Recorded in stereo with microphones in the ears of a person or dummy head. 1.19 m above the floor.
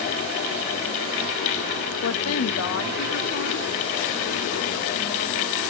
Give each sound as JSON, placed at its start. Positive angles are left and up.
{"t": 2.0, "sound": "a woman speaking", "side_deg": 80, "distance_m": 1.3}